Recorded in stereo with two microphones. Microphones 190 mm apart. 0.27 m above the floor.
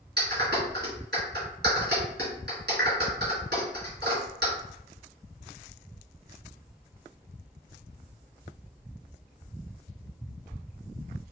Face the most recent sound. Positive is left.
turn(degrees=-65)  # may be behind; listen again after turning